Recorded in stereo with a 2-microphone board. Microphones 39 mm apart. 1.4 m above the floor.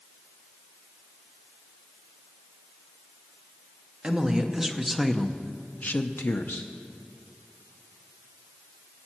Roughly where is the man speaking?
Centre.